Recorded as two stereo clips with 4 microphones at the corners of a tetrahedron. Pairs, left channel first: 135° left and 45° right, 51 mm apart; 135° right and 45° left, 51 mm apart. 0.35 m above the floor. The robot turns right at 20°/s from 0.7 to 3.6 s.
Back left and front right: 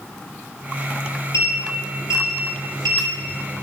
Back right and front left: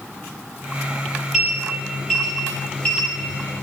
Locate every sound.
1.3 s a sliding door: 130° left, 8.5 m; by 3.6 s 175° left, 8.5 m